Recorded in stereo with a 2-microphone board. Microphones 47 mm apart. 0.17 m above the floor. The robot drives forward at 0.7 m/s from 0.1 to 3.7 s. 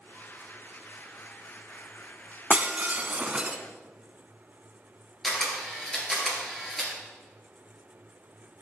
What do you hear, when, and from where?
2.5 s breaking glass: 30° right (ahead or behind), 0.6 m; by 3.6 s 25° right (ahead or behind), 0.7 m
5.2 s a camera shutter: centre (ahead or behind), 3 m